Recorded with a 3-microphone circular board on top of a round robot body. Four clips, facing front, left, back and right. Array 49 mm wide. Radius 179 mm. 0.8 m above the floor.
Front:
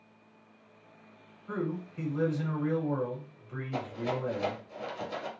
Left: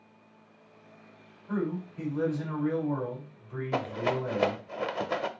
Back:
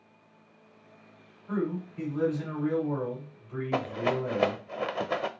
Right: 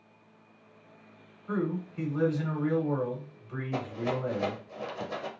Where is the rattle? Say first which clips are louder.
Left 3 dB, back 5 dB; 155° left, 0.6 m.